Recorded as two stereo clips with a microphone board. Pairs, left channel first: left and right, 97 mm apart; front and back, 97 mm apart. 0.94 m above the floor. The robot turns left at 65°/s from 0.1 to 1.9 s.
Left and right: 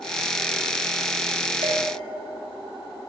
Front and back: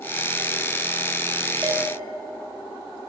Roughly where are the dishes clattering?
Right.